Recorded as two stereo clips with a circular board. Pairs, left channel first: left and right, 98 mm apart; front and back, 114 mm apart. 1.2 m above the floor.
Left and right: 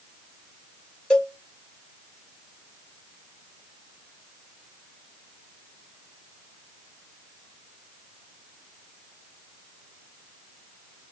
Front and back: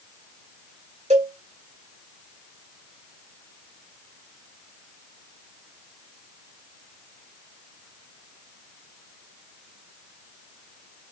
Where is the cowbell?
170° left, 2 m.